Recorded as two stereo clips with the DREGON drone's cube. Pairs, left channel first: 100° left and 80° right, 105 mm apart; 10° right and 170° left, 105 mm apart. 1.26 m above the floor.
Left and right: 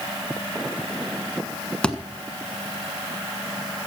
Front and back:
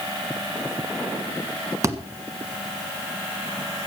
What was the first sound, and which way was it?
A thud, 175° left.